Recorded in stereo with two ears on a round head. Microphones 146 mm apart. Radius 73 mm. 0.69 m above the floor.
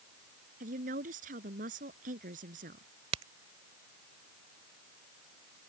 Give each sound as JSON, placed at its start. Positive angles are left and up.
{"t": 0.6, "sound": "a woman speaking", "side_deg": -50}
{"t": 3.1, "sound": "a crack", "side_deg": -40}